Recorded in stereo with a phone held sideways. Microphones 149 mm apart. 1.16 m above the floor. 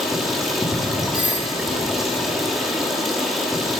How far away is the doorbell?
About 1.5 m.